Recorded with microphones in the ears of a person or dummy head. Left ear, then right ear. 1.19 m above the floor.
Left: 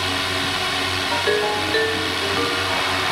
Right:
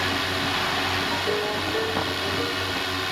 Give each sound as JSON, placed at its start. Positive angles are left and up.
{"t": 0.0, "sound": "a drone", "side_deg": 10}
{"t": 1.1, "sound": "a ringtone", "side_deg": 75}